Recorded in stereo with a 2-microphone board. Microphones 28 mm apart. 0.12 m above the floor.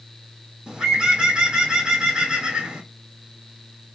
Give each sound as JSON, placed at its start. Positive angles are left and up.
{"t": 0.7, "sound": "a bird", "side_deg": -35, "distance_m": 1.5}